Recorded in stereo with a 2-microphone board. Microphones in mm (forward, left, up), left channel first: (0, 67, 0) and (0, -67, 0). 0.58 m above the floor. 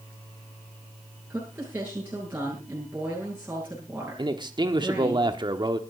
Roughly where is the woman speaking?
Centre.